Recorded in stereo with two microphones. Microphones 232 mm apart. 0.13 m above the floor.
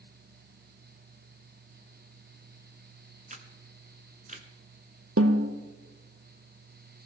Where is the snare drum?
80° right, 1.1 m.